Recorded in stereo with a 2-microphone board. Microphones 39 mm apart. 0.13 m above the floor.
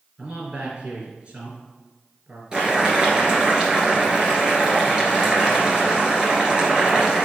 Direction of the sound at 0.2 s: 35° right (ahead or behind).